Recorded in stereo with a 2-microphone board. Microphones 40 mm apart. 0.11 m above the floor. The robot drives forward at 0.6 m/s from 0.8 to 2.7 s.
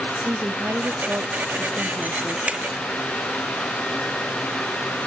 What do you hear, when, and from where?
0.1 s a woman speaking: 60° right (ahead or behind), 3 m
2.5 s a finger snap: 25° right (ahead or behind), 1.2 m; by 2.6 s 30° right (ahead or behind), 1.1 m